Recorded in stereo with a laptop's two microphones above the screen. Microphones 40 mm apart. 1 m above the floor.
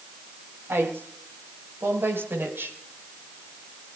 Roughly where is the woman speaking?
Right.